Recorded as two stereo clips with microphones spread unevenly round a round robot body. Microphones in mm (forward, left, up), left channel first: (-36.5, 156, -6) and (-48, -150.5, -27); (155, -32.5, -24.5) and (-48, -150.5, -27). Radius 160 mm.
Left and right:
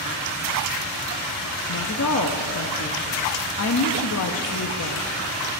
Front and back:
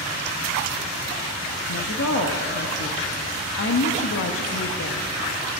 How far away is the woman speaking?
About 0.6 m.